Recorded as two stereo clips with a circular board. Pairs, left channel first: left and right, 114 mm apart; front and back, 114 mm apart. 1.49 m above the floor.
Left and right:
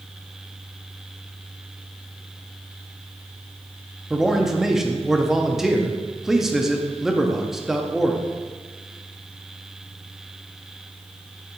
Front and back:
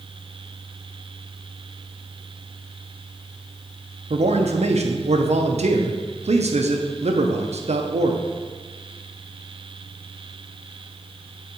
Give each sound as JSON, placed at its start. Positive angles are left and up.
{"t": 4.1, "sound": "a man speaking", "azimuth_deg": -175, "distance_m": 0.7}